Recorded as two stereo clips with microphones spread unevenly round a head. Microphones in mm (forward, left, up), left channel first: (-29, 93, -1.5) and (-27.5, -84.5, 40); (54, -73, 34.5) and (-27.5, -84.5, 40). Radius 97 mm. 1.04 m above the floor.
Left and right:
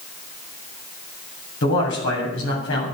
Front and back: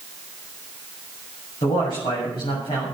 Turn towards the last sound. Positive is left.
turn(degrees=65)